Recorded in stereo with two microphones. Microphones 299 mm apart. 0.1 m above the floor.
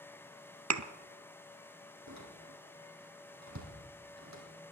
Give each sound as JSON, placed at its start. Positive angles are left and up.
{"t": 0.7, "sound": "a thud", "side_deg": -65, "distance_m": 0.7}
{"t": 2.1, "sound": "a door slam", "side_deg": -65, "distance_m": 3.0}